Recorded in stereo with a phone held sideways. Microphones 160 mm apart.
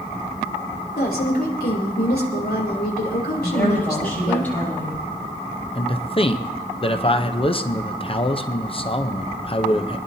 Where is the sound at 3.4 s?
10° left (ahead or behind), 7 m.